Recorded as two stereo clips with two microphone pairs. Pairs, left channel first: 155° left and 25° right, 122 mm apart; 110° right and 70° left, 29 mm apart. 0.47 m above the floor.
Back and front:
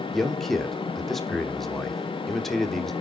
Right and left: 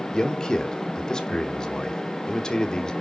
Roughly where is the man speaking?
Behind right.